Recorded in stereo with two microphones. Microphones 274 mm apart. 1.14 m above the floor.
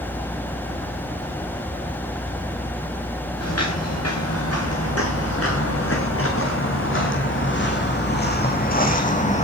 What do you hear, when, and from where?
3.4 s footsteps: 65° left (ahead or behind), 6 m; by 9.4 s 25° left (ahead or behind), 3.5 m